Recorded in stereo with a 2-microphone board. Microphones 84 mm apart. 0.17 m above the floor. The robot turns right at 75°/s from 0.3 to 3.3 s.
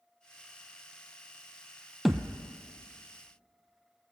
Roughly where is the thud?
Ahead.